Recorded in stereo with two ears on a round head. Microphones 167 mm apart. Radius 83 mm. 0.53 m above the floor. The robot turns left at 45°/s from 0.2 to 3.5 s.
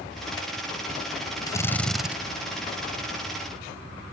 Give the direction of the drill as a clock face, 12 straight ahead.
11 o'clock.